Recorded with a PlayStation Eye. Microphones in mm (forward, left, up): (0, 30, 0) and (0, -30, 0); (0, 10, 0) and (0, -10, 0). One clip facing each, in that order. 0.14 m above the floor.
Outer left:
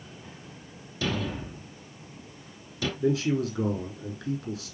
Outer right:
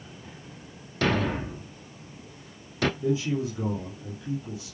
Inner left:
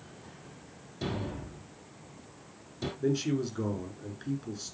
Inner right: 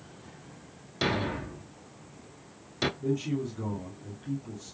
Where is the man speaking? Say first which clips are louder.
Outer left 1 dB, inner left 1 dB; 75° left (ahead or behind), 6 m.